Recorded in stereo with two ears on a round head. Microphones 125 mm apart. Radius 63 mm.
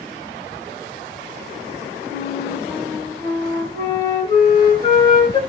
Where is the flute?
35° left (ahead or behind), 1.0 m.